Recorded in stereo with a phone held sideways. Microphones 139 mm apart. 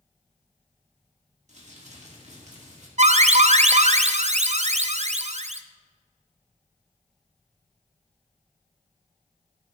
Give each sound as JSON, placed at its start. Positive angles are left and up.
{"t": 1.5, "sound": "crumpling", "side_deg": -55, "distance_m": 2.0}
{"t": 3.0, "sound": "an alarm", "side_deg": -55, "distance_m": 0.5}